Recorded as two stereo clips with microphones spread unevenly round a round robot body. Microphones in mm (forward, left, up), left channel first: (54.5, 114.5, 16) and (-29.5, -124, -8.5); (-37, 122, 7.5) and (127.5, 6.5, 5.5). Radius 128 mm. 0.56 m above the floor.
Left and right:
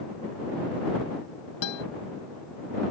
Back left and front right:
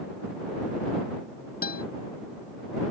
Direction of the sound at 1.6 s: 100° left.